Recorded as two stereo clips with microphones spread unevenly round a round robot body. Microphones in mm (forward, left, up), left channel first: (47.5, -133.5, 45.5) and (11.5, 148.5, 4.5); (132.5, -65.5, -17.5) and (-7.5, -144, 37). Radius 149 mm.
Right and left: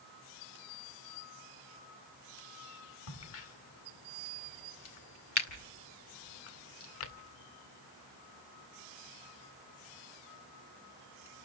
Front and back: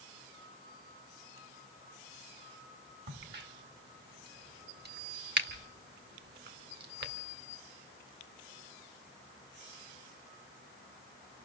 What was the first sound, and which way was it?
A crack, 130° right.